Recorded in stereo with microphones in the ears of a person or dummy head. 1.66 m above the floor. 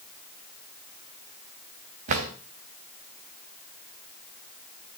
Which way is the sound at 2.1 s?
50° right (ahead or behind).